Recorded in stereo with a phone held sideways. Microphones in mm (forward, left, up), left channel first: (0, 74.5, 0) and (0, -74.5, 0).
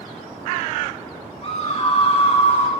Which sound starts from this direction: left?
A scream, at 1.4 s.